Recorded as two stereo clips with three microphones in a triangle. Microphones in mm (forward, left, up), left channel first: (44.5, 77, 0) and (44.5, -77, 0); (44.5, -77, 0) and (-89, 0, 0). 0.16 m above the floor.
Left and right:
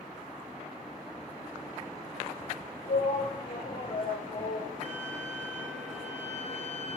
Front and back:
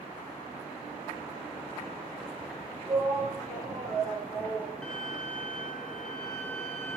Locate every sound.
2.9 s a shout: 80° left, 8 m
4.8 s a violin: 115° right, 1.9 m